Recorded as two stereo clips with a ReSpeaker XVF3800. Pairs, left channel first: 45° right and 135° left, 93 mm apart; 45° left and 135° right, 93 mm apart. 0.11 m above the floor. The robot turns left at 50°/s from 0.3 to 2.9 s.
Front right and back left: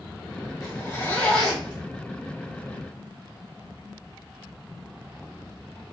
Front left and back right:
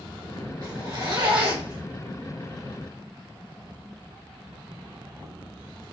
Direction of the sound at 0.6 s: 90° right.